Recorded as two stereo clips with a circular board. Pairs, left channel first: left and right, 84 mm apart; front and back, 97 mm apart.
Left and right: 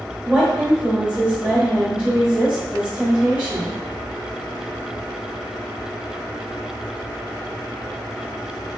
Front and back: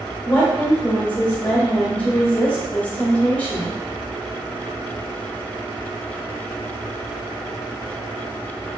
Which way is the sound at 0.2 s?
40° right.